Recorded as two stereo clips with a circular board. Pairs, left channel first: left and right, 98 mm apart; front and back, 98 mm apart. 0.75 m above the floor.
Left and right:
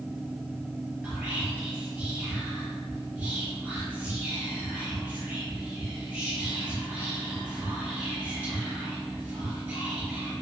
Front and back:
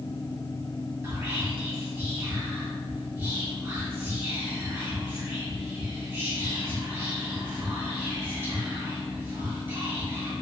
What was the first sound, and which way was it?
Whispering, 145° right.